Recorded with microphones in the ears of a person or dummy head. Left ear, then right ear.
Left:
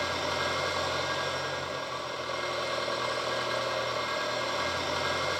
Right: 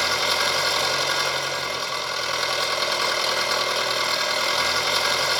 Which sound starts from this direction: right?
An engine running, at 0.0 s.